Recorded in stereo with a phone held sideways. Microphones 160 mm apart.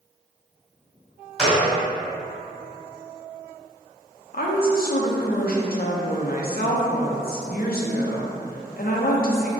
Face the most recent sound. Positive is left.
turn(degrees=65)  # may be behind; listen again after turning